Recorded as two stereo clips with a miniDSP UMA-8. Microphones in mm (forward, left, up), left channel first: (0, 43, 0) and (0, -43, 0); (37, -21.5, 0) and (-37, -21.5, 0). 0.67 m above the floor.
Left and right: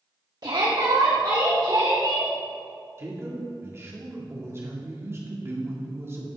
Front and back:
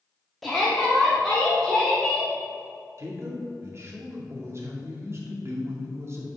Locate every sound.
0.4 s a shout: 90° right, 1.2 m; by 2.3 s 85° right, 3 m
3.0 s a man speaking: 140° right, 1.6 m